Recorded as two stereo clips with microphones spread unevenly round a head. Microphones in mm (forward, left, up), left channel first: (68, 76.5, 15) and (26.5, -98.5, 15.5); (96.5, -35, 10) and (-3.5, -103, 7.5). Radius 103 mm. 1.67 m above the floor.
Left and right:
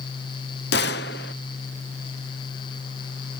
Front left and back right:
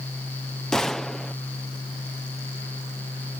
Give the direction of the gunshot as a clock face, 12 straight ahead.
8 o'clock.